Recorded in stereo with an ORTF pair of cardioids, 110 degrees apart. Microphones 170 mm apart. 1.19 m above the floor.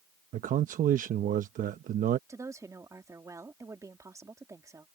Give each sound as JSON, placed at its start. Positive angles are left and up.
{"t": 0.3, "sound": "a man speaking", "azimuth_deg": -50}
{"t": 2.3, "sound": "a woman speaking", "azimuth_deg": -20}